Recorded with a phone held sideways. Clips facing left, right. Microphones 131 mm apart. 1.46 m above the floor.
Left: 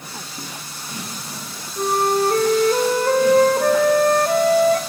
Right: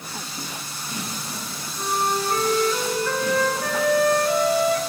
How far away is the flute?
About 2 m.